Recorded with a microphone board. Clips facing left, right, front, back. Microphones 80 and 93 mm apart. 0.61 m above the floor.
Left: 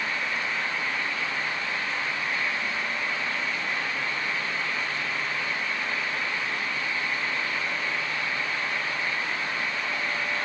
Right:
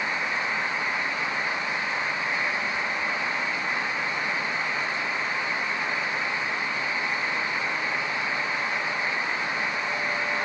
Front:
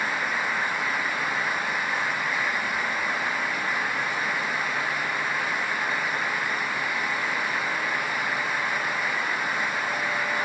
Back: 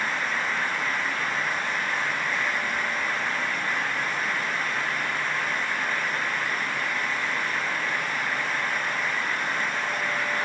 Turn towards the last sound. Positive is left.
No sound to turn to.